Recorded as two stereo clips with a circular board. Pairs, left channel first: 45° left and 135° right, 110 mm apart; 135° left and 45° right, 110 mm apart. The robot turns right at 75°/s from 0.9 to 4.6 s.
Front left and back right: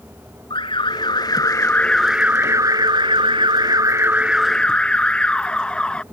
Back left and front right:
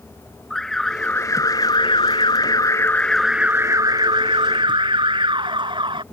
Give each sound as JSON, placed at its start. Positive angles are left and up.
{"t": 0.5, "sound": "an alarm", "azimuth_deg": 50}